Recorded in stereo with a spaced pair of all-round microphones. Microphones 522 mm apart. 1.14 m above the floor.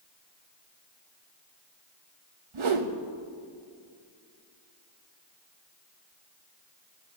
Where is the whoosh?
75° right (ahead or behind), 0.7 m.